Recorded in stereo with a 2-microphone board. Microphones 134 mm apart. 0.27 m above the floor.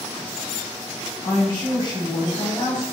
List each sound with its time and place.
1.2 s a woman speaking: 35° left (ahead or behind), 1.3 m